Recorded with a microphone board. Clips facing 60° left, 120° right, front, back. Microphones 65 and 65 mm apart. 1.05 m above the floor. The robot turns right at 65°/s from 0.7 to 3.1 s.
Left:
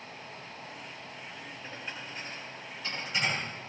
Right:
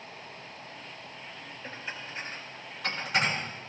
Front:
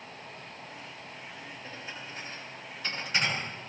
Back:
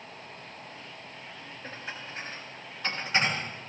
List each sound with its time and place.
1.6 s dishes clattering: 140° left, 7 m; by 3.4 s 125° right, 7 m